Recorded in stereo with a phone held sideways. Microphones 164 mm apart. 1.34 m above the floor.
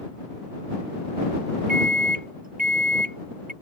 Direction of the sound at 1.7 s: 60° right (ahead or behind).